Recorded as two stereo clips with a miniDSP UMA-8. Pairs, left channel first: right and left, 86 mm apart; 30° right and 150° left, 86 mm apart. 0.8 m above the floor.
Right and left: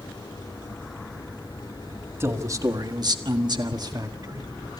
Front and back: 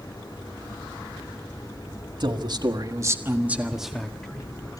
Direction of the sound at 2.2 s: 145° left.